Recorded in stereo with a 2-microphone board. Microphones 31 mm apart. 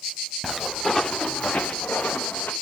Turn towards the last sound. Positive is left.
turn(degrees=70)  # may be behind; listen again after turning